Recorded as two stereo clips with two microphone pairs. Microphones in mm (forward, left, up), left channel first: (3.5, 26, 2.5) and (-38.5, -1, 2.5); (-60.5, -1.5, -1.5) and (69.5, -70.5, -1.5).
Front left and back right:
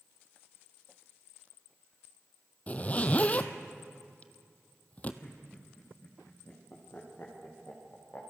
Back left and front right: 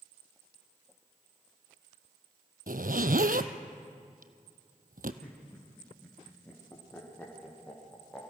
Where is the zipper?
25° right, 1.2 m.